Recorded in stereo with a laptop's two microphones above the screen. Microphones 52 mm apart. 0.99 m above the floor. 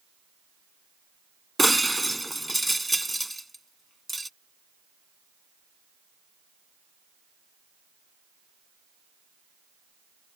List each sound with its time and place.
1.6 s breaking glass: 5° left (ahead or behind)